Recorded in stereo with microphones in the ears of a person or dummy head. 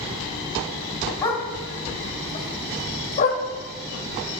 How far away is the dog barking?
About 1.3 m.